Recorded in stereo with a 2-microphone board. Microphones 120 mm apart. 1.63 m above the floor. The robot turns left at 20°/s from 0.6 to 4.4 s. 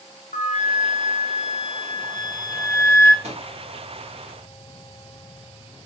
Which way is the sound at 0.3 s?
70° left.